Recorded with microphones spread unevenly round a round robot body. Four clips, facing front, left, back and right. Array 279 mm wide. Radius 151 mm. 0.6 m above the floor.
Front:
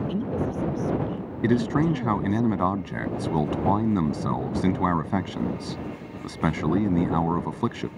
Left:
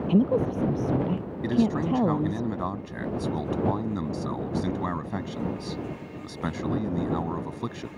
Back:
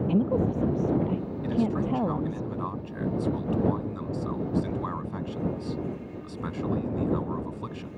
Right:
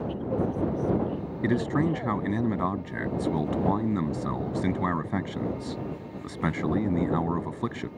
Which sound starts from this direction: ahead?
A man speaking, at 1.4 s.